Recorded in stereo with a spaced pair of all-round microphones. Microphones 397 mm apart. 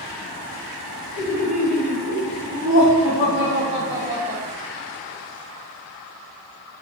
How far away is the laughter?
About 4 m.